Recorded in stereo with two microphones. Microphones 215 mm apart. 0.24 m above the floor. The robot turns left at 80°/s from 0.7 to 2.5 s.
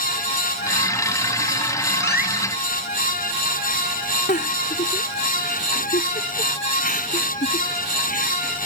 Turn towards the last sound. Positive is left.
turn(degrees=40)  # may be behind; listen again after turning